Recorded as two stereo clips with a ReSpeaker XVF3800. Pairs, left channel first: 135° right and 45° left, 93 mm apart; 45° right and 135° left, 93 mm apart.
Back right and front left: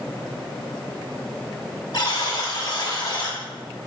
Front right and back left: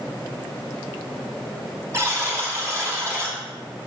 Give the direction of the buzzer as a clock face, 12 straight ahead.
6 o'clock.